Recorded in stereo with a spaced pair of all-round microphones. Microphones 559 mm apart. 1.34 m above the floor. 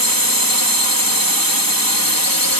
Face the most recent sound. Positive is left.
turn(degrees=35)  # may be behind; listen again after turning